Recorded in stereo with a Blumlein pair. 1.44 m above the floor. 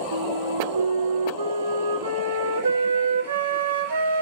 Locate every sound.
0.1 s a flute: 65° right, 3 m